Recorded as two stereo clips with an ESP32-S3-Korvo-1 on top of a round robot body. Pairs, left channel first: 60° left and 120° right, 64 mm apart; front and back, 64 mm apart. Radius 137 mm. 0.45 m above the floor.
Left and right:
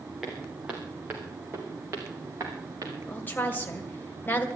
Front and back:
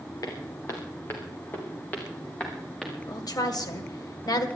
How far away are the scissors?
I don't hear scissors.